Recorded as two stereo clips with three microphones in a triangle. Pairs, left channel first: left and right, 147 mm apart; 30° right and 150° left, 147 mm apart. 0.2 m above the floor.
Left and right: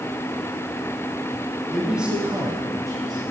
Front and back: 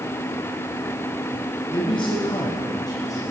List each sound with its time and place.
1.7 s a man speaking: straight ahead, 1.6 m; by 3.2 s 75° right, 1.4 m